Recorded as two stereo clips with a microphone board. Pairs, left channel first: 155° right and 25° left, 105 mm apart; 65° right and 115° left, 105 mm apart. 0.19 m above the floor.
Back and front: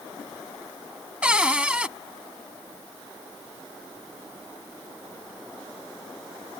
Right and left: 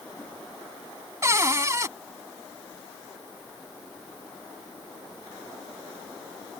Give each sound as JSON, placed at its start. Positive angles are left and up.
{"t": 1.2, "sound": "a cupboard door", "azimuth_deg": 95}